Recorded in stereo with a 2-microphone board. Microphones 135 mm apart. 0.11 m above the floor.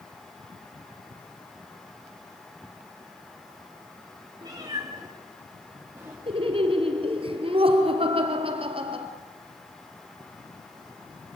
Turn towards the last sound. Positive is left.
turn(degrees=-45)  # may be behind; listen again after turning